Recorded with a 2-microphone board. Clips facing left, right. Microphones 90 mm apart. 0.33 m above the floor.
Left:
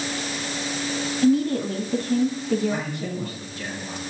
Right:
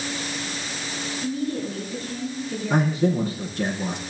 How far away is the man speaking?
About 4.5 m.